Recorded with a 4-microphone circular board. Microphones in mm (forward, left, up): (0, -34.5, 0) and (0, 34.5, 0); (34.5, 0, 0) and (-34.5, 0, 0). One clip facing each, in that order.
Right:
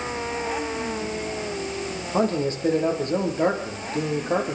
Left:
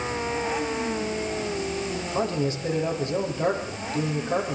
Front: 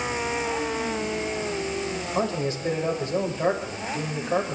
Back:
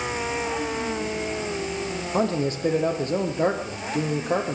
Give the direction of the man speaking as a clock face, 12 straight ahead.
5 o'clock.